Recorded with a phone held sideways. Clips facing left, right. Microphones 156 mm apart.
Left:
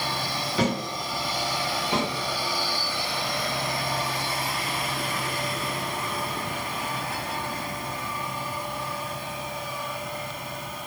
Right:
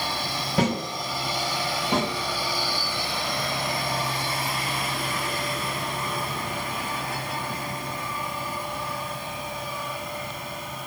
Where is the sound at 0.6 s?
55° right (ahead or behind), 1.7 m.